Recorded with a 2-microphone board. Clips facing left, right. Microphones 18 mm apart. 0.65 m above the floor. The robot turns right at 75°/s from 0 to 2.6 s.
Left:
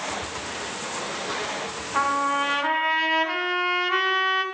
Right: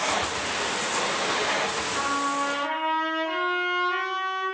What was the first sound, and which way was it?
A trumpet, 105° left.